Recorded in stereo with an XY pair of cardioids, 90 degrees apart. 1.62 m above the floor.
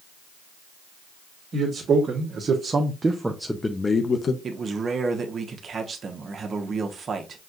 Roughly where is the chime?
I don't hear a chime.